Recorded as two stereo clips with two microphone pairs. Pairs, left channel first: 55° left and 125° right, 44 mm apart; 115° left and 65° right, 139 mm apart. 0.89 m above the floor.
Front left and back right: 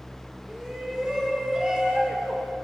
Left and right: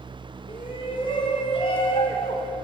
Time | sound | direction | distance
0.5 | a shout | 160° left | 3.5 m